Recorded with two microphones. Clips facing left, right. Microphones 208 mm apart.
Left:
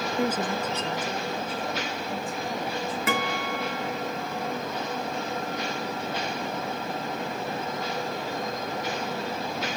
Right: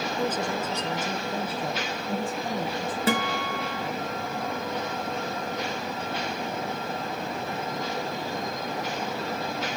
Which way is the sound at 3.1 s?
30° right (ahead or behind).